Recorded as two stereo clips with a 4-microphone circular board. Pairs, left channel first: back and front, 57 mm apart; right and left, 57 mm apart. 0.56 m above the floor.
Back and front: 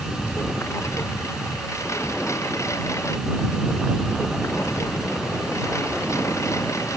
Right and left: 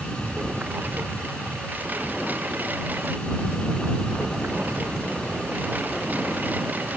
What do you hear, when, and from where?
0.0 s a lawn mower: 150° left